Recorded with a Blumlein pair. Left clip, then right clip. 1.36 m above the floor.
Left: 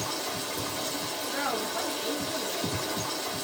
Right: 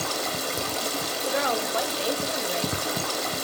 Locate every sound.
0.0 s running water: 60° right, 0.7 m
1.2 s a woman speaking: 65° right, 0.8 m